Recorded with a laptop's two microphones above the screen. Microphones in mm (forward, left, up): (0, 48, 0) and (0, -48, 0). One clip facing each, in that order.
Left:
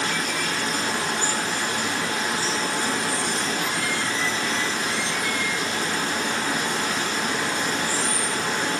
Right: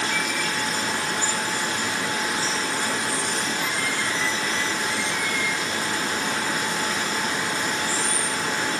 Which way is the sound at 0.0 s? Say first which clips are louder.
Even; 65° left (ahead or behind).